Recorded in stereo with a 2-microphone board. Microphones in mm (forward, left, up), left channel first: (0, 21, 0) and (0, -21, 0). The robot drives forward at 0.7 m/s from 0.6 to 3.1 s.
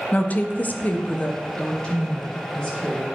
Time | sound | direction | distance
0.1 | a woman speaking | 40° left (ahead or behind) | 0.6 m